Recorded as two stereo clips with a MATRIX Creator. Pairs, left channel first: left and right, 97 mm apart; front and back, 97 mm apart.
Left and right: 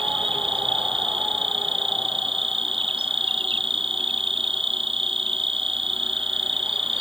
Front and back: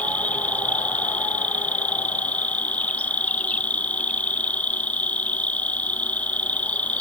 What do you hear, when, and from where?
0.0 s an insect: 75° right